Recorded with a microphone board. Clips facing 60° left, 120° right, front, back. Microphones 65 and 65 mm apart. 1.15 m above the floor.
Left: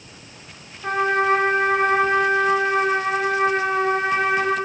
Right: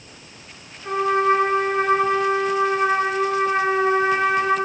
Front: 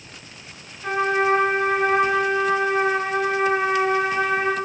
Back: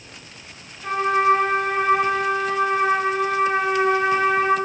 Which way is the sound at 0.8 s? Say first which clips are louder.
Right 1 dB, back 2 dB; 80° left.